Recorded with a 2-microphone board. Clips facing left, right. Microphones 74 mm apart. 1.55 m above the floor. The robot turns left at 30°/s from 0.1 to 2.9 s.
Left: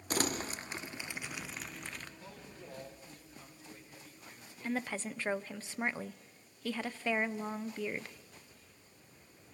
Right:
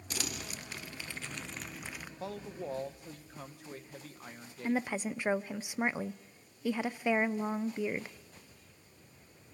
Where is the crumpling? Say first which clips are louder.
Left 7 dB; 45° left (ahead or behind), 0.6 m; by 2.1 s 15° right (ahead or behind), 0.6 m.